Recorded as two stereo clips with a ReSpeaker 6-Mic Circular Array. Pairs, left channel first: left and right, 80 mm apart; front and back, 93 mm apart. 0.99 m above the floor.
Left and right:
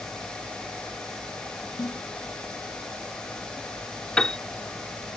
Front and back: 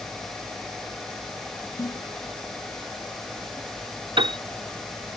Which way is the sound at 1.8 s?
50° left.